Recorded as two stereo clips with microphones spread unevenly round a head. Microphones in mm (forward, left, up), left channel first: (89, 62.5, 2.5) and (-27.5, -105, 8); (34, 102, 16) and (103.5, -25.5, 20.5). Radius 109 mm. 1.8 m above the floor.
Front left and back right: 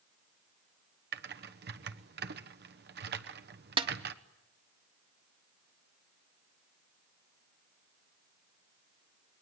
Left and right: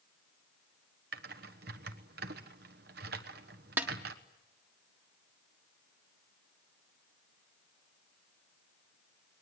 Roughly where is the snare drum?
Behind right.